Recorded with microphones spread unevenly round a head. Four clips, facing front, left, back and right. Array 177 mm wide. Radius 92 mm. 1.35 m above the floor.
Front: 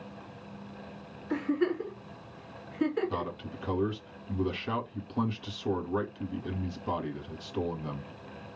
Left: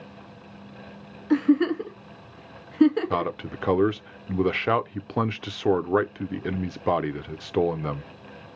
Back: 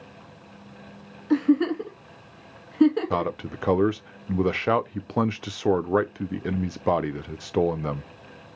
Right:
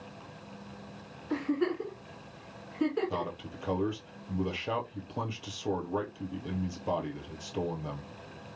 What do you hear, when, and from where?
1.3 s a giggle: 135° left, 1.6 m
3.1 s a man speaking: 145° left, 0.6 m